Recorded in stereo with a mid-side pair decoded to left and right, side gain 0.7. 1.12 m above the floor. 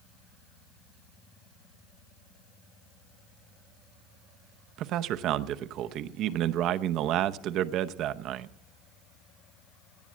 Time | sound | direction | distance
4.8 | a man speaking | 55° right | 0.7 m